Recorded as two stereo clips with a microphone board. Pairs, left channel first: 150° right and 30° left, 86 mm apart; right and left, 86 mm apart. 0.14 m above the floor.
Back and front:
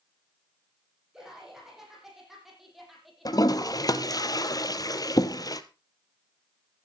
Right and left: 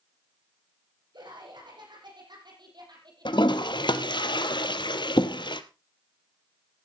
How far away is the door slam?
No door slam in this recording.